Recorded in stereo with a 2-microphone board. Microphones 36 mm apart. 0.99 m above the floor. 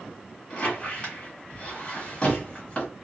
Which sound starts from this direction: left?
A squeak, at 0.5 s.